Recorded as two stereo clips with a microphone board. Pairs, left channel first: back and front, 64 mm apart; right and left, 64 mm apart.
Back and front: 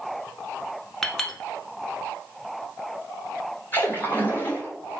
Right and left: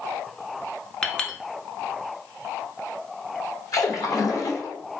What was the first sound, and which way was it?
A clink, 125° right.